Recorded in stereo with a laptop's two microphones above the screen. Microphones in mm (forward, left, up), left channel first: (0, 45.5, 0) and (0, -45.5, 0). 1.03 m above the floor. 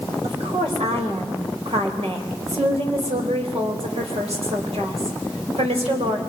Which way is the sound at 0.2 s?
80° right.